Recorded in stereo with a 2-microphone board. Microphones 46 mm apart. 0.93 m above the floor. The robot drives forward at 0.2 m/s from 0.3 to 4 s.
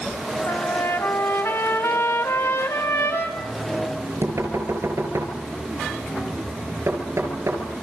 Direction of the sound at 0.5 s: 75° left (ahead or behind).